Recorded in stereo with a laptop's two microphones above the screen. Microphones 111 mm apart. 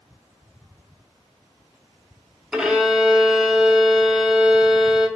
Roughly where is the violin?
Centre.